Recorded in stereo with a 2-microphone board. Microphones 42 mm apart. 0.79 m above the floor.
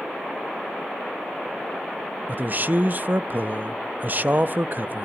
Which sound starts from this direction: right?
A man speaking, at 2.3 s.